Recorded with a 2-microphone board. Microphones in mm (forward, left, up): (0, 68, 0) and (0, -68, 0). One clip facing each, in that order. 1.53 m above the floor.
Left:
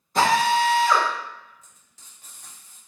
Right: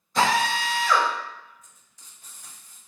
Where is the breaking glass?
I don't hear breaking glass.